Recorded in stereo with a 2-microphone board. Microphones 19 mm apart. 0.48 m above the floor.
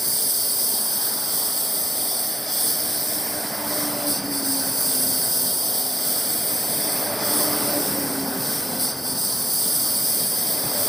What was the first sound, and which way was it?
A lawn mower, 10° left (ahead or behind).